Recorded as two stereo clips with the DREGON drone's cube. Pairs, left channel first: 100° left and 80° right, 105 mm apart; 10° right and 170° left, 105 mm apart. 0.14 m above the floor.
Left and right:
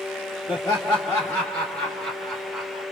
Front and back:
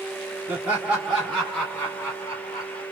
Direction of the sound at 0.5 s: 110° left.